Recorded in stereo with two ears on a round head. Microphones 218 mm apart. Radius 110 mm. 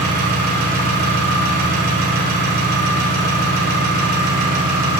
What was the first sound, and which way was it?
An engine running, 40° right (ahead or behind).